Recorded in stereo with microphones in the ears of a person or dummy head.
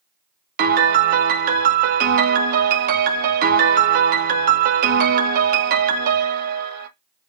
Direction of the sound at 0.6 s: 45° right (ahead or behind).